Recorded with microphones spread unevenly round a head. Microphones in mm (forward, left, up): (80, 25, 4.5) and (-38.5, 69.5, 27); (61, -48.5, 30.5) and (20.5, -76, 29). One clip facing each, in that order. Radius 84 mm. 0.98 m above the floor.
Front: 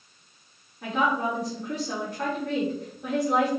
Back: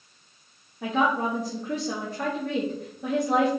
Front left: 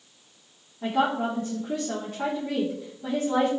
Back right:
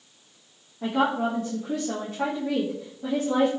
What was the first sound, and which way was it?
A woman speaking, 175° left.